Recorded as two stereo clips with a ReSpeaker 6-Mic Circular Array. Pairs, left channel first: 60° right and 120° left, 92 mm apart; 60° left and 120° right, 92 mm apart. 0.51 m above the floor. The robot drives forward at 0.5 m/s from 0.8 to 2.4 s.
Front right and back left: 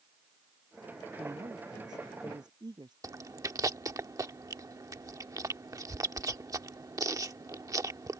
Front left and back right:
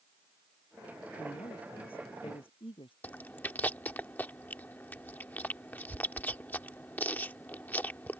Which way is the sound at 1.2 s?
75° left.